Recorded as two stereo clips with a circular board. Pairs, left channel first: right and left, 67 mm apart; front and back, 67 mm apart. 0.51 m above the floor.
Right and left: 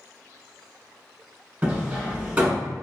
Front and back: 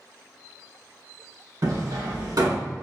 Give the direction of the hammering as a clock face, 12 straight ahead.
7 o'clock.